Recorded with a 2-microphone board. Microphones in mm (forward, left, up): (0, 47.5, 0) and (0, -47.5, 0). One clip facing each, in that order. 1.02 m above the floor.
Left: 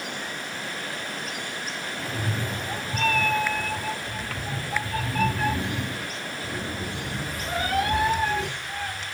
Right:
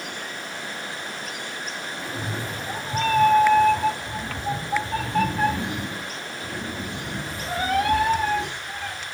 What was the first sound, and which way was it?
A cat meowing, centre (ahead or behind).